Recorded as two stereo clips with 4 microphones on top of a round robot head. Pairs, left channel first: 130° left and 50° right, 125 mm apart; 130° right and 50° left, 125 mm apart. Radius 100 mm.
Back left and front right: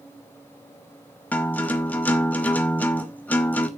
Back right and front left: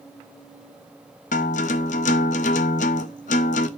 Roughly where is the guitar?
Behind right.